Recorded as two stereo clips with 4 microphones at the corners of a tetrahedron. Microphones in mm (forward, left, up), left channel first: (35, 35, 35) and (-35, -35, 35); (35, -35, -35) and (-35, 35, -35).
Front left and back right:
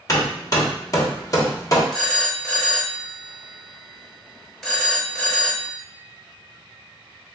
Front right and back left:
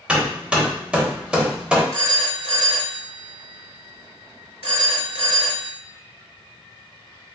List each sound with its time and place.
0.1 s hammering: 65° left, 1.0 m
1.9 s a phone ringing: 125° left, 1.1 m